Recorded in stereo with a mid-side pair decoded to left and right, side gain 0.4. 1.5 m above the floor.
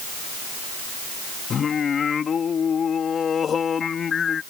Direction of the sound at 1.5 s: 50° left.